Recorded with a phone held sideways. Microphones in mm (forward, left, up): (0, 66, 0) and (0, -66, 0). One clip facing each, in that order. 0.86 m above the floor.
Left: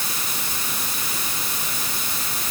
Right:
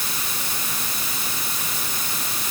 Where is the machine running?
No machine running in this recording.